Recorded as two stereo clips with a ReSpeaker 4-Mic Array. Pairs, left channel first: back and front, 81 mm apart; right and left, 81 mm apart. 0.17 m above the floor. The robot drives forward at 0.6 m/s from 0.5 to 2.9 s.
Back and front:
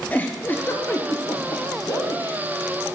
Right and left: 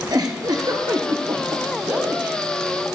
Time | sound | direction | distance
0.1 | a giggle | 115° left | 1.4 m